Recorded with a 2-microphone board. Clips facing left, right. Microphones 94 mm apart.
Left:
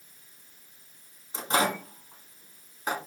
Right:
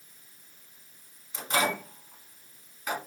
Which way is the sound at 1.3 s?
35° left (ahead or behind).